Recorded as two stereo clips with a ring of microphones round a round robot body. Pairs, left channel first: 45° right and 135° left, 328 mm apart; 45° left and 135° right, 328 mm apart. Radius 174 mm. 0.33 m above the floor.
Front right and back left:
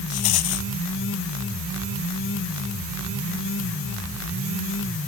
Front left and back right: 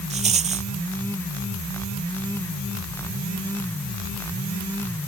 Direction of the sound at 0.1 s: 65° right.